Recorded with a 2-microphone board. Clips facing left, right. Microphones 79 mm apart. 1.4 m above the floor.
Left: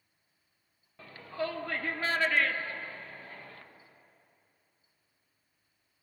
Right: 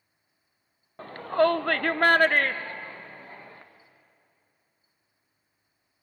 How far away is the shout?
About 0.7 m.